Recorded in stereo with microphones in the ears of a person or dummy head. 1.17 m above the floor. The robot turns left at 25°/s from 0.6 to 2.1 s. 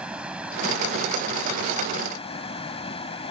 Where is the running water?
175° right; by 3.3 s 150° left.